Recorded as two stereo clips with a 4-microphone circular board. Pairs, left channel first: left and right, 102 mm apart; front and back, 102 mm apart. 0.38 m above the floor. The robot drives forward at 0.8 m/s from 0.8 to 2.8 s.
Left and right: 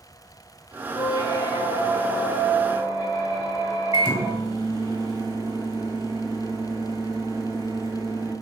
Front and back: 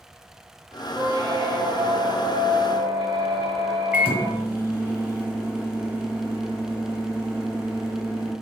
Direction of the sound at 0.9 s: 120° left.